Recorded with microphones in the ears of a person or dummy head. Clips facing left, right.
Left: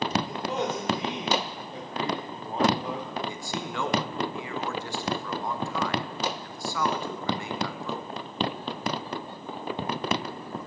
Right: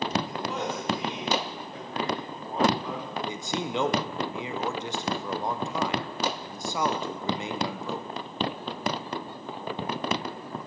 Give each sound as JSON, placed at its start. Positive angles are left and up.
{"t": 0.3, "sound": "a man speaking", "side_deg": 20, "distance_m": 3.0}
{"t": 3.3, "sound": "a man speaking", "side_deg": -15, "distance_m": 0.6}